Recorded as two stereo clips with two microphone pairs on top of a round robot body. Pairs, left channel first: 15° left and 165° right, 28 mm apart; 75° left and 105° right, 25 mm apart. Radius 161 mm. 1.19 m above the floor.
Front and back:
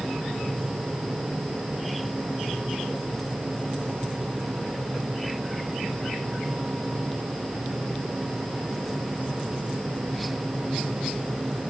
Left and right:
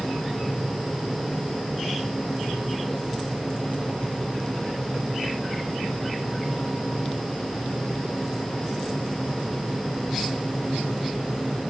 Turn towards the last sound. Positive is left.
No sound to turn to.